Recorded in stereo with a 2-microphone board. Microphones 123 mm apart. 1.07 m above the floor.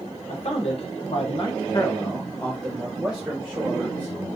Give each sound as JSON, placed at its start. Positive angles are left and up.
{"t": 0.3, "sound": "a man speaking", "side_deg": 55, "distance_m": 1.1}